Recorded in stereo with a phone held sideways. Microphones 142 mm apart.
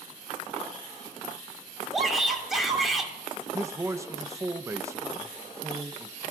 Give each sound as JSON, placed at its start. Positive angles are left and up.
{"t": 1.9, "sound": "a shout", "side_deg": 0, "distance_m": 3.5}
{"t": 3.5, "sound": "a man speaking", "side_deg": -20, "distance_m": 0.7}